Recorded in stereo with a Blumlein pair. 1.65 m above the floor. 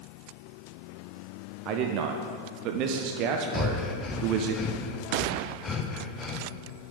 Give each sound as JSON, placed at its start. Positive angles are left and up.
{"t": 1.6, "sound": "a man speaking", "azimuth_deg": -40, "distance_m": 0.6}
{"t": 3.5, "sound": "breathing", "azimuth_deg": 20, "distance_m": 0.7}